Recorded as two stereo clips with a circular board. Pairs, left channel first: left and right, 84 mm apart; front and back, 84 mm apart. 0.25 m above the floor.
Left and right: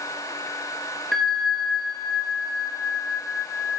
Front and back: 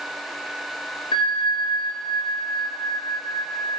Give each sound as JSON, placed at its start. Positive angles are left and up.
{"t": 1.1, "sound": "a bell", "azimuth_deg": 5, "distance_m": 1.7}